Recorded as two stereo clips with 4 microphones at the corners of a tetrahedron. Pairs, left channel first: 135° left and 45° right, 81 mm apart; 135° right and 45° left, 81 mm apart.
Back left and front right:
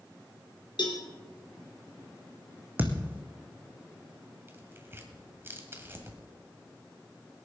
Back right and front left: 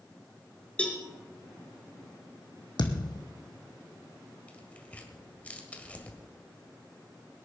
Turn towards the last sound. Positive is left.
turn(degrees=-75)